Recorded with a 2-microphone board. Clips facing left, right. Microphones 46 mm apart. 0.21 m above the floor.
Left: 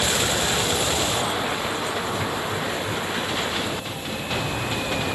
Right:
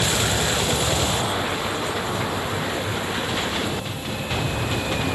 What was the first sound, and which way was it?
Only background noise.